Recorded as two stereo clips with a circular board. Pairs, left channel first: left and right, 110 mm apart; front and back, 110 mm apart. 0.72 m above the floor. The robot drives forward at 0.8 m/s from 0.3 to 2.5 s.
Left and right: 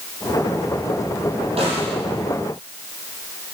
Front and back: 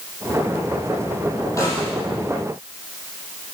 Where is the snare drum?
60° right, 6.5 m; by 1.9 s 65° right, 6.5 m.